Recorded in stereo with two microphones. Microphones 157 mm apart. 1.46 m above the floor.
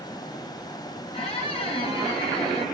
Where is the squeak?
35° left (ahead or behind), 1.0 m.